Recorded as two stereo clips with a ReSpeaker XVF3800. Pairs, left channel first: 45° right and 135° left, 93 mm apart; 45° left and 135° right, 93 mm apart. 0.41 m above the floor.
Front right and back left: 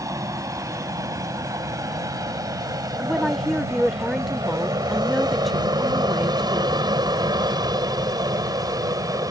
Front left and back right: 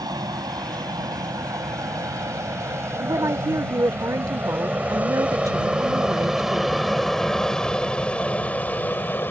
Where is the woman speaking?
135° right.